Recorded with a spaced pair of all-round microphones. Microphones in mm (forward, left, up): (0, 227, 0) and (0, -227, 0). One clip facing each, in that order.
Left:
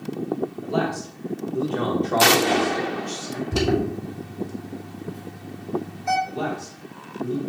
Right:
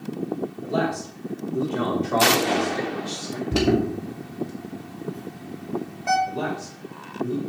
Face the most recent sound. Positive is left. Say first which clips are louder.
# even
turn(degrees=-15)  # may be behind; listen again after turning